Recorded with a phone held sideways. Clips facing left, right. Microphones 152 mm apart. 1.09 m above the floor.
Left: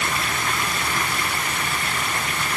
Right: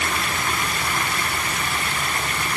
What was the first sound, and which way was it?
Only background noise.